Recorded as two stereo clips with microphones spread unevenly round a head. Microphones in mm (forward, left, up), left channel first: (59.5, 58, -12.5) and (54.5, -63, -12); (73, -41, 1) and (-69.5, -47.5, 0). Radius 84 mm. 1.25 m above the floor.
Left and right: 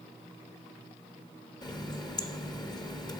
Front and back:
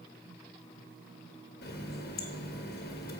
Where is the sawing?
I don't hear sawing.